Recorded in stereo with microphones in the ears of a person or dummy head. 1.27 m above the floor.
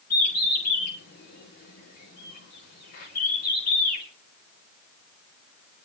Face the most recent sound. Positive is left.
turn(degrees=55)  # may be behind; listen again after turning